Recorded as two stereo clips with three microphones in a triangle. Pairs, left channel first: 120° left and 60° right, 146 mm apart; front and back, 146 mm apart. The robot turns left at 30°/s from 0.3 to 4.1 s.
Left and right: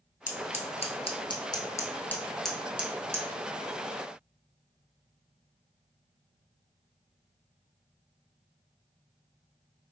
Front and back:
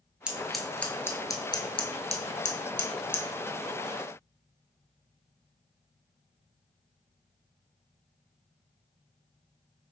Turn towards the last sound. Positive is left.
turn(degrees=-20)